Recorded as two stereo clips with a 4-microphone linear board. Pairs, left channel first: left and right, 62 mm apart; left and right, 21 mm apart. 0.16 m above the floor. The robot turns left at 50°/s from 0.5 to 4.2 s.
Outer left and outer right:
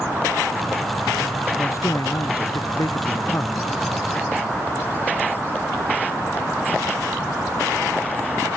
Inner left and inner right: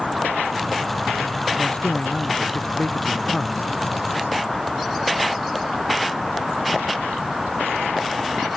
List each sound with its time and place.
1.6 s a man speaking: 135° left; by 3.7 s 30° left